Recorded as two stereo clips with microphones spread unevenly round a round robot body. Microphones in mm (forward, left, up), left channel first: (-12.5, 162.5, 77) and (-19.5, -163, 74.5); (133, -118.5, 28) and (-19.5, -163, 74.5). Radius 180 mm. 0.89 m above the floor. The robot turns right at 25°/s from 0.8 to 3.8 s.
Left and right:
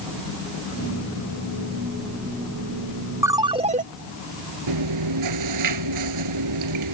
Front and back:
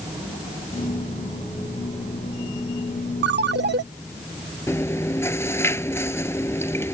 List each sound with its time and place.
3.2 s a ringtone: 175° right; by 3.8 s 160° right
4.7 s chewing: 60° right